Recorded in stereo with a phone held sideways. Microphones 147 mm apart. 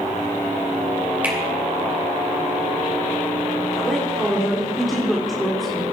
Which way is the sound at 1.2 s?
15° right (ahead or behind).